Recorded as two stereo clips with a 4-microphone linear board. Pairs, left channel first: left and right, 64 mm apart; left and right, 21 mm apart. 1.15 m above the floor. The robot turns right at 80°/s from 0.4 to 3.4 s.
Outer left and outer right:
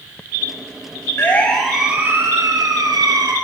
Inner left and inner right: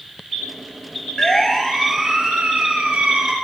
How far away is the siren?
About 6.5 m.